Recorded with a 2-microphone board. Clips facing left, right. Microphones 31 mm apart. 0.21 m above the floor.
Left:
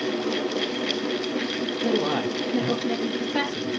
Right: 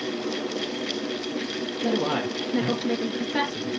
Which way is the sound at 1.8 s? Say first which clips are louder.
Left 1 dB; 40° right (ahead or behind).